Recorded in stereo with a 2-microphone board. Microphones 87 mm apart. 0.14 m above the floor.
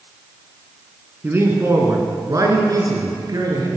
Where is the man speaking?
25° right (ahead or behind), 1.8 m; by 3.7 s 45° right (ahead or behind), 3 m.